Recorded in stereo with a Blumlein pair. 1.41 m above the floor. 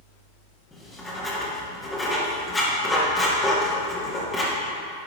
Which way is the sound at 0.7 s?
15° left.